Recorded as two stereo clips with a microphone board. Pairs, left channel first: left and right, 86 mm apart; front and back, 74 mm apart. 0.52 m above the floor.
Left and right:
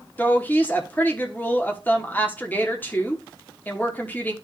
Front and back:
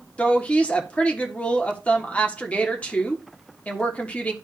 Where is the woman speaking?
50° left, 1.4 m.